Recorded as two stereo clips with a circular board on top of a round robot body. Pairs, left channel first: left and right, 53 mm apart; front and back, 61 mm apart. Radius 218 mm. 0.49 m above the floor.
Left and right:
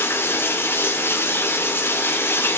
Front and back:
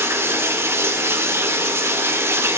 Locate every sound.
0.0 s running water: 135° left, 2.5 m